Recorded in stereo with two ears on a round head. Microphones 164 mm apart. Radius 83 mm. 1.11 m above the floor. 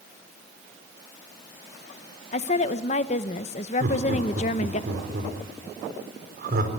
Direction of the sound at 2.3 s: 40° left (ahead or behind).